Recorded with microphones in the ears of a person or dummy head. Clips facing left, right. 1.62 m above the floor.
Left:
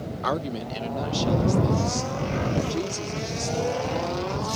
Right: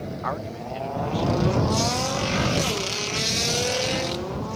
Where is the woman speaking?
45° left (ahead or behind); by 4.5 s 60° left (ahead or behind).